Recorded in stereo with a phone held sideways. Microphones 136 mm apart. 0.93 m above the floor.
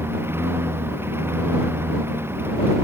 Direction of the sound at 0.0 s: 15° right (ahead or behind).